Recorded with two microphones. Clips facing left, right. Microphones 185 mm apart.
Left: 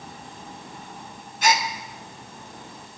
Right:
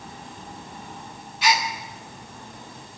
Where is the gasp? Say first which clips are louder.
Left 1 dB; 50° left (ahead or behind), 1.1 m.